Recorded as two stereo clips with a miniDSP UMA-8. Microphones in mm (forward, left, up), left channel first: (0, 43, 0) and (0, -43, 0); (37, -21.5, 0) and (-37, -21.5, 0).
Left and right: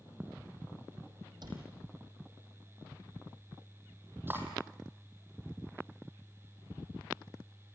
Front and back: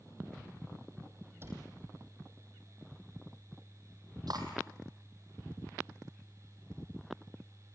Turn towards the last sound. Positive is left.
turn(degrees=-155)